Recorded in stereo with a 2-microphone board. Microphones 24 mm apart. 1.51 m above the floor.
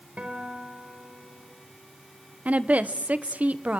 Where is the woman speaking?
80° right, 1.1 m.